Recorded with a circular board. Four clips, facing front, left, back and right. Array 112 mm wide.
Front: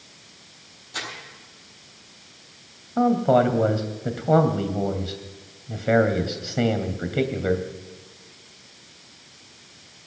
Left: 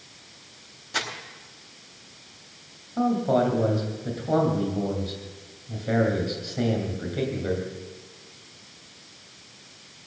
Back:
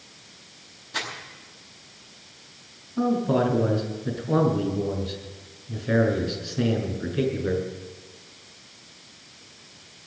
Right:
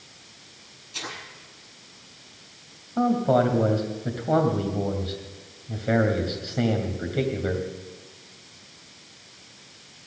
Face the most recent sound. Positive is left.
turn(degrees=-15)